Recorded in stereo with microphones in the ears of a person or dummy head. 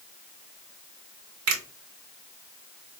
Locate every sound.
1.5 s a finger snap: 70° right (ahead or behind), 1.6 m